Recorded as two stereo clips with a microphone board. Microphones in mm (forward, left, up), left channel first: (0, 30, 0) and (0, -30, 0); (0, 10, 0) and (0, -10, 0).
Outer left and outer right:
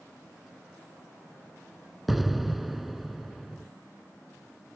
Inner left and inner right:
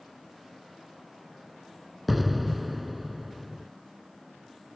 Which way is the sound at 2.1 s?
Centre (ahead or behind).